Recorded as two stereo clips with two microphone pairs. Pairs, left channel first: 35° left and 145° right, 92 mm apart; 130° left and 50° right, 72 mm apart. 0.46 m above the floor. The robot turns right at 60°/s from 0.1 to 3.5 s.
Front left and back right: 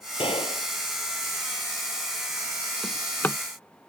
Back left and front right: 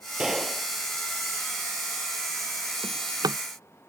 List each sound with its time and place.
0.2 s a gunshot: 30° left; by 0.7 s 60° left
2.8 s a drawer: 60° right; by 3.4 s 25° right